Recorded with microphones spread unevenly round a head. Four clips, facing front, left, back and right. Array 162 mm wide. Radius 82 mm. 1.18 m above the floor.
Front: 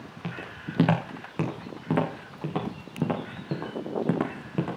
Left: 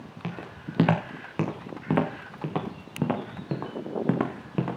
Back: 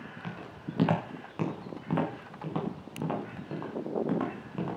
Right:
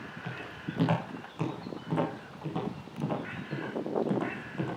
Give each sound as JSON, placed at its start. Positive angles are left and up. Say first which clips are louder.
{"t": 0.2, "sound": "footsteps", "louder": "left 4 dB, front 5 dB", "azimuth_deg": 60, "distance_m": 6.5}